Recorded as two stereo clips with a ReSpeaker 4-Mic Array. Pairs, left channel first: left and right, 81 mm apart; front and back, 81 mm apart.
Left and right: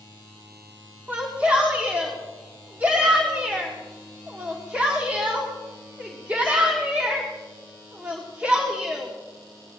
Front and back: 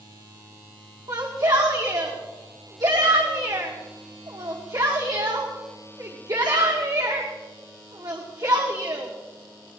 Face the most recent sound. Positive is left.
turn(degrees=-160)